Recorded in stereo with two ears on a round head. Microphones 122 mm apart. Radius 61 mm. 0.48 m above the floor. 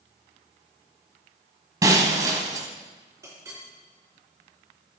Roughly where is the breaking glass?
Right.